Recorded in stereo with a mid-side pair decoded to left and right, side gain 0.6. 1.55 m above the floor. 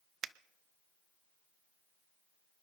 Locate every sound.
0.2 s a finger snap: 45° right, 0.5 m